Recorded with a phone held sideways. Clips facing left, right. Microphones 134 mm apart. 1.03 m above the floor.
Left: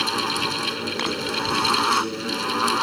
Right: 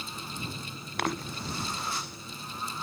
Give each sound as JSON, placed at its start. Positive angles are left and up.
{"t": 0.0, "sound": "a fan", "side_deg": 70}